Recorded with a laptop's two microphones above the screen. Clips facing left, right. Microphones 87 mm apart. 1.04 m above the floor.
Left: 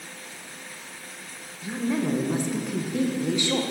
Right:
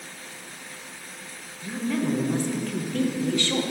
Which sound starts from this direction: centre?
A woman speaking, at 1.6 s.